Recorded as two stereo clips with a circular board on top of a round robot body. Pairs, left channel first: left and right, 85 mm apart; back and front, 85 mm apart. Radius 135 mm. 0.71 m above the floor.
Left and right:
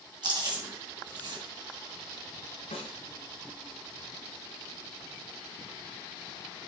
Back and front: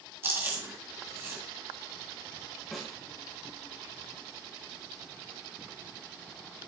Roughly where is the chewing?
Ahead right.